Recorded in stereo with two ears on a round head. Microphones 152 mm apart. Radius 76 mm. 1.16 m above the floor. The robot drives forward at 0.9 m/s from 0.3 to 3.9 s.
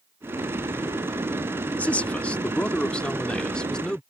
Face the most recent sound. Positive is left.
turn(degrees=5)  # may be behind; listen again after turning